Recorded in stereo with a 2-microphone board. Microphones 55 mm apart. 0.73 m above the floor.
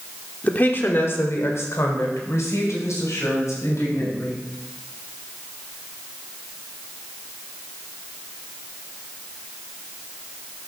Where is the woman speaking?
35° left (ahead or behind), 1.5 m; by 4.5 s 80° left, 5 m.